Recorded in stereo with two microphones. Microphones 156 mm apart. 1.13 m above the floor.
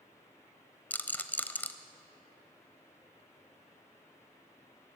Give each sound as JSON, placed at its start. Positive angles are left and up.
{"t": 0.9, "sound": "a rattle", "side_deg": 10, "distance_m": 1.0}